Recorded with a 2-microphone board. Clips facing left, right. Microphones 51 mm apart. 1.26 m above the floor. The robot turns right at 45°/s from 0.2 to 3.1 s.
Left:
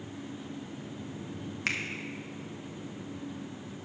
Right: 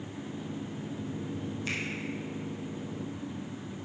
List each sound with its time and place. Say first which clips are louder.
1.7 s a finger snap: left 4 dB; 80° left, 1.1 m; by 1.8 s 85° left, 1.1 m